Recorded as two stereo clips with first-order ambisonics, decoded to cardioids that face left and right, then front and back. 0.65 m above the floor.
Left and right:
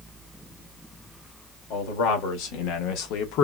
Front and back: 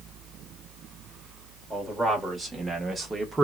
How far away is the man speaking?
About 2.0 m.